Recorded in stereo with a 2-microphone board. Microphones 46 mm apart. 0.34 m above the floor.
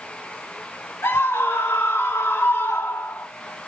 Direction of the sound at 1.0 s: 70° left (ahead or behind).